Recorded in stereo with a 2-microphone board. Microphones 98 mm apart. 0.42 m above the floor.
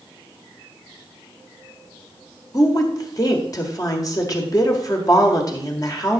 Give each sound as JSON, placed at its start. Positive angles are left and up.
{"t": 2.5, "sound": "a woman speaking", "side_deg": 40, "distance_m": 1.7}